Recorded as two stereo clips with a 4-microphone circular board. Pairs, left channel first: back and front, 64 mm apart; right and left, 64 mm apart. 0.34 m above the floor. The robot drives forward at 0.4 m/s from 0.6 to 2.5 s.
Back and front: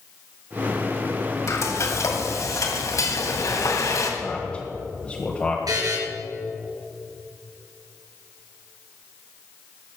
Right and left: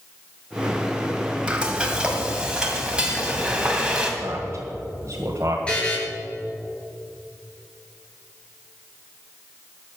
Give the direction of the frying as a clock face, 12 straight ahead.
7 o'clock.